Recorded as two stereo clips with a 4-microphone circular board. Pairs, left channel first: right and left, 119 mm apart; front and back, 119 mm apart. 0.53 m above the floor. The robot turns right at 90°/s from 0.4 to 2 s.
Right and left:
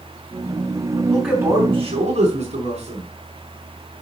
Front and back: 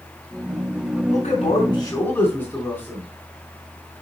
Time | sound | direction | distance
1.1 | a man speaking | 10° right | 3.5 m